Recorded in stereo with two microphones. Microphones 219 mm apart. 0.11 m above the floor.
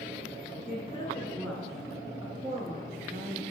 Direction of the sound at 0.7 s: 30° left (ahead or behind).